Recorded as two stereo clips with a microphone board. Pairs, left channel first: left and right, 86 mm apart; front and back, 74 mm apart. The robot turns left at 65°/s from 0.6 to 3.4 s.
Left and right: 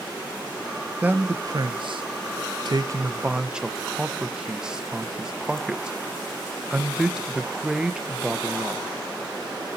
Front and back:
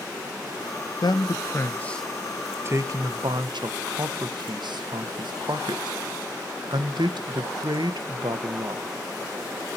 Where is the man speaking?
15° right, 0.8 m; by 8.8 s 170° right, 0.8 m.